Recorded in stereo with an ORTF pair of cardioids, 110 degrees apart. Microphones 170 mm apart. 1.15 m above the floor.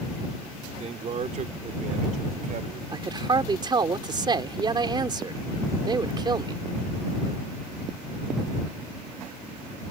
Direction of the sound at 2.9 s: 30° right.